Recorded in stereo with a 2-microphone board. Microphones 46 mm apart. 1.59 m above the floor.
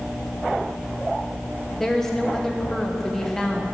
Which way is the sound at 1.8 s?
5° left (ahead or behind).